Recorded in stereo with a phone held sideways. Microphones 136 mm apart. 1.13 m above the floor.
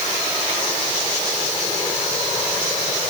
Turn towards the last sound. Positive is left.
No sound to turn to.